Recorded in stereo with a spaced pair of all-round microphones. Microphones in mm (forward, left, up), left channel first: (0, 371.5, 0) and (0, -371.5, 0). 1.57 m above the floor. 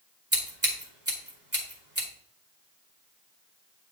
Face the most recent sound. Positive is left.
turn(degrees=-20)  # may be behind; listen again after turning